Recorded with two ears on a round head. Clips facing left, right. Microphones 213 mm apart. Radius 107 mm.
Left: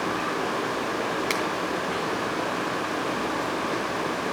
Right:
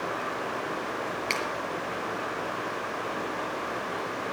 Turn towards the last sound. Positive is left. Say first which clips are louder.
# left 5 dB
turn(degrees=25)  # may be behind; listen again after turning